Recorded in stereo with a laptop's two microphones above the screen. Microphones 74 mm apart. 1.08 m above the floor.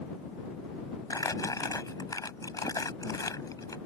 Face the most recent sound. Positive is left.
turn(degrees=55)  # may be behind; listen again after turning